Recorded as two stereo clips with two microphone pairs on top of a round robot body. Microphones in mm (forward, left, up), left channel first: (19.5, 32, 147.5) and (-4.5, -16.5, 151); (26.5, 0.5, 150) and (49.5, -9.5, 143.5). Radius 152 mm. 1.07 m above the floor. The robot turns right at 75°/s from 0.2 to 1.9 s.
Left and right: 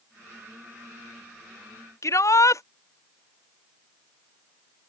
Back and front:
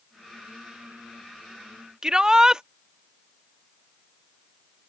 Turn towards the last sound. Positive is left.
turn(degrees=40)